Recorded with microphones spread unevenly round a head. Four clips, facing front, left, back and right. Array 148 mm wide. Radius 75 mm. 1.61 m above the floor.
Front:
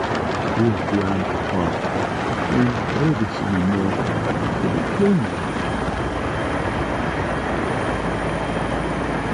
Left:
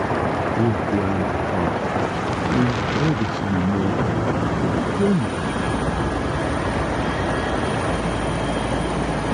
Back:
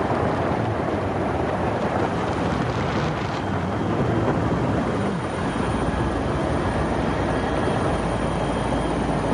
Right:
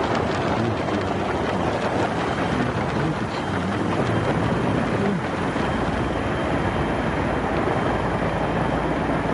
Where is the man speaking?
25° left.